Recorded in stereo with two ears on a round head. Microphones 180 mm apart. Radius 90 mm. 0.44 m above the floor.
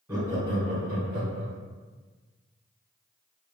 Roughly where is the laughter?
Centre.